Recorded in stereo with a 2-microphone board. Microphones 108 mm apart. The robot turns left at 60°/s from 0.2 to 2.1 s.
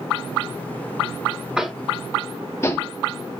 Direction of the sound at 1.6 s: 5° right (ahead or behind).